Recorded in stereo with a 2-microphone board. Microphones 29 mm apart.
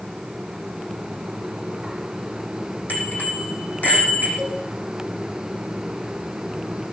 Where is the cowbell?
60° left (ahead or behind), 5.5 m.